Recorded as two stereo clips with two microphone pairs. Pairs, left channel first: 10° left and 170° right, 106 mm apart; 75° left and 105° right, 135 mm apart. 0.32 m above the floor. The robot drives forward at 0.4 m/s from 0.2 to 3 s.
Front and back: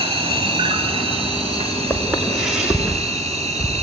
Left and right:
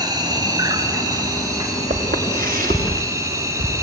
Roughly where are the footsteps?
Right.